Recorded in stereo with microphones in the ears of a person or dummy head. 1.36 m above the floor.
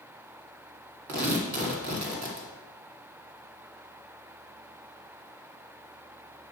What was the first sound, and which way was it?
Tearing paper, 45° right (ahead or behind).